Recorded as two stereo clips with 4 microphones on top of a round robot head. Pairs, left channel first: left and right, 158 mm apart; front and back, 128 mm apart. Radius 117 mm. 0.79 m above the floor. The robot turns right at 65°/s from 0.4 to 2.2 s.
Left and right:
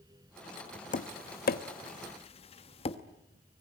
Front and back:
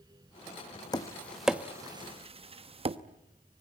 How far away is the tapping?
About 1.1 m.